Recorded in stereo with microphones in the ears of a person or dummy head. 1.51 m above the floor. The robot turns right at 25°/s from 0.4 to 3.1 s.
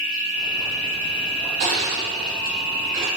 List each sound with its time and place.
0.0 s an insect: 140° left, 1.3 m; by 3.2 s 150° right, 1.3 m
1.6 s crushing: 30° right (ahead or behind), 1.3 m; by 3.1 s 20° right (ahead or behind), 1.3 m